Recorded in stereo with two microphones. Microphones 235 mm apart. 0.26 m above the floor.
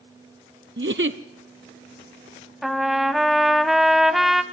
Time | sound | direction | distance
0.8 | a giggle | 50° right (ahead or behind) | 0.7 m
2.6 | a trumpet | centre (ahead or behind) | 0.9 m